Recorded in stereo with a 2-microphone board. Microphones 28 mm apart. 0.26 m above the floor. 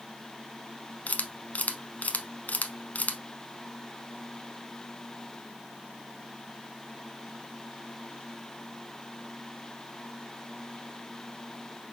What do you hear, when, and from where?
1.1 s a camera shutter: 70° left (ahead or behind), 0.6 m